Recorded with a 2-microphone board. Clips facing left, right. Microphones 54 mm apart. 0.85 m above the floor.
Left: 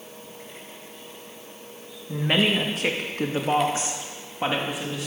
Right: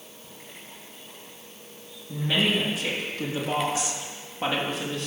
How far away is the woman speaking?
About 1.6 m.